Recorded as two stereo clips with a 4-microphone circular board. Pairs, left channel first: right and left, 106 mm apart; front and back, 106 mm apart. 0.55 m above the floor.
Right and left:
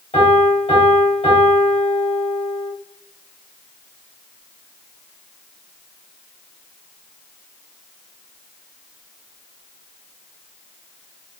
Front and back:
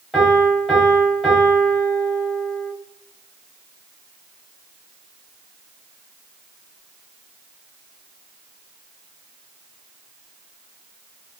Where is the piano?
95° right, 2.0 m.